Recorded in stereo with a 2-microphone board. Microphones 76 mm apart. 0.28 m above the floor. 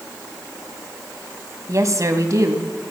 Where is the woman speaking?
45° right (ahead or behind), 1.5 m.